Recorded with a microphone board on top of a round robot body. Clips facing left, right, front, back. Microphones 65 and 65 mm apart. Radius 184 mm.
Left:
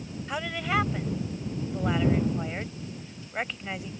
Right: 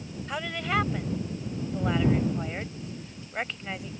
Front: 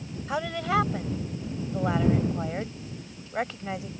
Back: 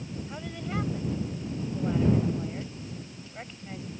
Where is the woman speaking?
5° left.